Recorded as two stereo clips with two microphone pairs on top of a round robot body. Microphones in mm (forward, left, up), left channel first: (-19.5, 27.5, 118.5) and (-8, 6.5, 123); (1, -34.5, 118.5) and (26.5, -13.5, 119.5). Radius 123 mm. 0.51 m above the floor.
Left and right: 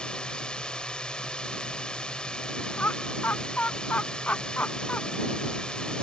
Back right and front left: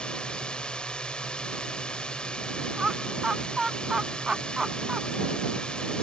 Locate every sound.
0.0 s a drone: 165° left
2.8 s laughter: 120° left